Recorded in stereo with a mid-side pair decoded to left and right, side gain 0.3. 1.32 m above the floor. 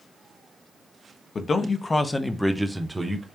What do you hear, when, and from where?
1.4 s a man speaking: 60° left, 0.9 m; by 3.2 s 25° right, 1.1 m